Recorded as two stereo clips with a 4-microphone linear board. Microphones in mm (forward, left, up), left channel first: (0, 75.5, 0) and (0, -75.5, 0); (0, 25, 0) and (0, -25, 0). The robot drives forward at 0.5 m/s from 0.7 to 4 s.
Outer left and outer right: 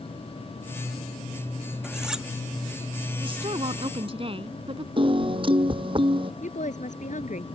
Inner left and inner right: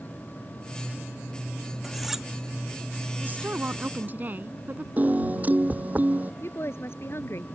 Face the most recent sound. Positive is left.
turn(degrees=60)  # may be behind; listen again after turning